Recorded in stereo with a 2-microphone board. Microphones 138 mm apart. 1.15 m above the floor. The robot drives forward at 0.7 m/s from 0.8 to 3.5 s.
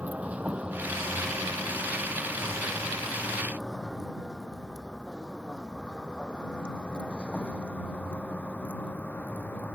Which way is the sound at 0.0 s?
10° right (ahead or behind).